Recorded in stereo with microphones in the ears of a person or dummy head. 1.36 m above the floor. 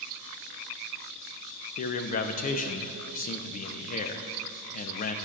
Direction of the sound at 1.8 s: 45° left (ahead or behind).